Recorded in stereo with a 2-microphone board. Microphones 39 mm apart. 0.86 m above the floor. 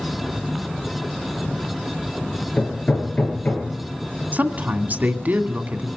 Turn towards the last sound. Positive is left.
turn(degrees=-55)  # may be behind; listen again after turning